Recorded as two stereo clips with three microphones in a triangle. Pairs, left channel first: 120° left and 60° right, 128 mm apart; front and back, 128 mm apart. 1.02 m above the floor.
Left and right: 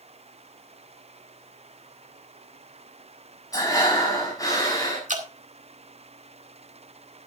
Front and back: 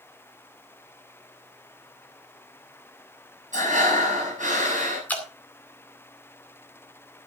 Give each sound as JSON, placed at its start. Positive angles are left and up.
{"t": 3.5, "sound": "breathing", "azimuth_deg": -175, "distance_m": 6.5}
{"t": 5.1, "sound": "dripping", "azimuth_deg": -75, "distance_m": 2.0}